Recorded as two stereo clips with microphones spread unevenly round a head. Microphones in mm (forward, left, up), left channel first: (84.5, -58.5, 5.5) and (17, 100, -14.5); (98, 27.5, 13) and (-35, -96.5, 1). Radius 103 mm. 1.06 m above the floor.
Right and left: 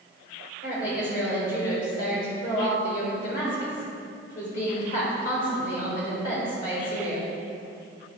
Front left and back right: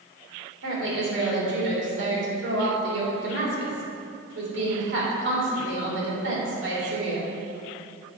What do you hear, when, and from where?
0.6 s a woman speaking: 125° right, 3 m